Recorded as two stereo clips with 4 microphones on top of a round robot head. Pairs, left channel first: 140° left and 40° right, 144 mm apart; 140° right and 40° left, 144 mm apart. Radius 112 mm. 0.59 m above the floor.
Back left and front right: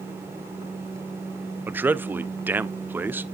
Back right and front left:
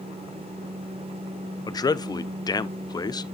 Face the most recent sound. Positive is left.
turn(degrees=-105)